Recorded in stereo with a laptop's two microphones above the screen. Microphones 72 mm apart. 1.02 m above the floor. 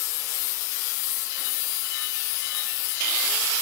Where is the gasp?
I don't hear a gasp.